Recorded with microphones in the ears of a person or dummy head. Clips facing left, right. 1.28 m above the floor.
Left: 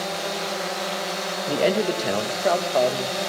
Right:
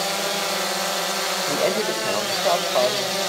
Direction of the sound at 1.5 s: 15° left (ahead or behind).